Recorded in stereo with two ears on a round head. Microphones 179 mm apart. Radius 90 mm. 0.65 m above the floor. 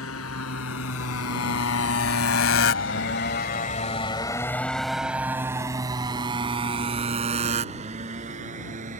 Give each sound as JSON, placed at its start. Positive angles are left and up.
{"t": 0.0, "sound": "a motorcycle", "side_deg": 80}